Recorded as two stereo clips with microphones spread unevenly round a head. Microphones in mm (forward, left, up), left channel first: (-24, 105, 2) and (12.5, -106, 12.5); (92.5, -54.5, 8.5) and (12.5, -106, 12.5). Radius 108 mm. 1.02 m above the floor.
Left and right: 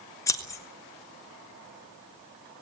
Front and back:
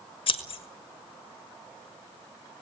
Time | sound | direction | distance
0.3 | scissors | 25° left | 1.7 m